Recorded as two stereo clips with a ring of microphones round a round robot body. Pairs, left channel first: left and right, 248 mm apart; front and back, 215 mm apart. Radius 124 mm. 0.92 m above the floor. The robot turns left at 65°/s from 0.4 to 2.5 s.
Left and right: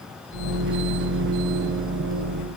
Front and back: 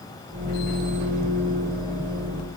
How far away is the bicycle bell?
I don't hear a bicycle bell.